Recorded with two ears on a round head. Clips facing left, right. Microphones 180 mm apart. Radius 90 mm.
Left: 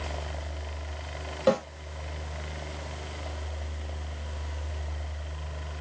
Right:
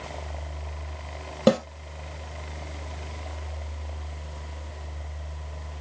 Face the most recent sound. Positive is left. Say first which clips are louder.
# right 4 dB
turn(degrees=-65)  # may be behind; listen again after turning